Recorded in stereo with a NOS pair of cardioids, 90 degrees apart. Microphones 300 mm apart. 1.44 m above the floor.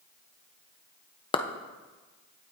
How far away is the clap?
About 0.8 m.